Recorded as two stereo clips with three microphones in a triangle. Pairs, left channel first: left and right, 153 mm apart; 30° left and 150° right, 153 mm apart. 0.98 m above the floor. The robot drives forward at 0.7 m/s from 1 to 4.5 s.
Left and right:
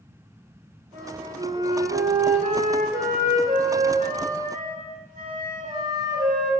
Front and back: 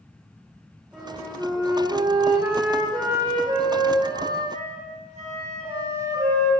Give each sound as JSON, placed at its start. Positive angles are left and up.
{"t": 0.9, "sound": "a flute", "azimuth_deg": -60, "distance_m": 3.0}